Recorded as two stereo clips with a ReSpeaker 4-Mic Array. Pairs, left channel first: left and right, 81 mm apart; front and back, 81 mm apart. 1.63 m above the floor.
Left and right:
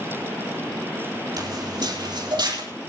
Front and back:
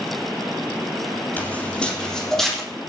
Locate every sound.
1.4 s footsteps: 70° right, 3.5 m; by 2.6 s 90° right, 4.5 m